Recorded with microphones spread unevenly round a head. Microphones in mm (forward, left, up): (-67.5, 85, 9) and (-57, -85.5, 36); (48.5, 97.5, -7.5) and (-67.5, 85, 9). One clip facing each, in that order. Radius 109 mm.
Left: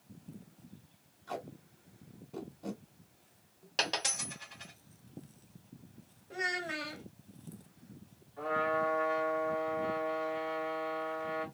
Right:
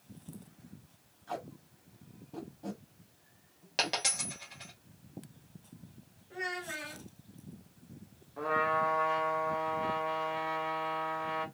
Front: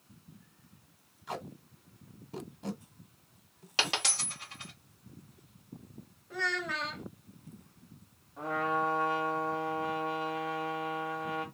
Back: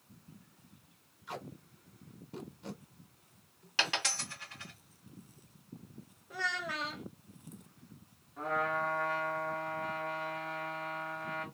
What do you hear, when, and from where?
1.3 s tape being pulled: 5° left, 0.8 m
3.8 s a dropped coin: 45° right, 1.0 m
6.3 s a child speaking: 115° left, 0.6 m
8.4 s a trumpet: 75° right, 1.2 m